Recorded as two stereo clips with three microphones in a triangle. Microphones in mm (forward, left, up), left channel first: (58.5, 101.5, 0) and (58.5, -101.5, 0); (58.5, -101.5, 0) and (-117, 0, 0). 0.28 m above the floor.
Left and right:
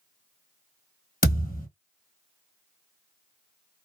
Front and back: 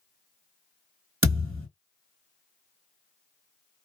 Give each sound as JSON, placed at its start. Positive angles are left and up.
{"t": 1.2, "sound": "a thud", "azimuth_deg": 135, "distance_m": 1.2}